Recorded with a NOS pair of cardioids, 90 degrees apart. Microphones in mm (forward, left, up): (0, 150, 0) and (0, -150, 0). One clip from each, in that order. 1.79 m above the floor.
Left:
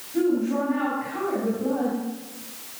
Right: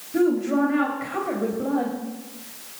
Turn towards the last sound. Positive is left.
turn(degrees=-70)